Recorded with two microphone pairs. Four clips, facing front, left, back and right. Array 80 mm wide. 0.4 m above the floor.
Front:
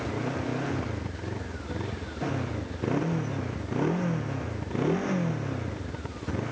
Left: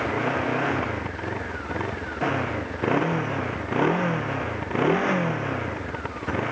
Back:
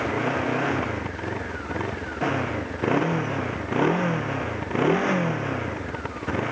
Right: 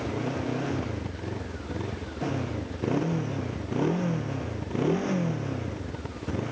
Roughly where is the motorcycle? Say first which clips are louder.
Left 6 dB, back 6 dB; behind left.